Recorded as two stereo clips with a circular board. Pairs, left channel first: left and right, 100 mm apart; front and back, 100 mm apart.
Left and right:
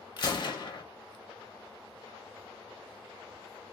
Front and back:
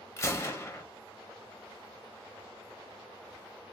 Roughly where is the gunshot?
Ahead left.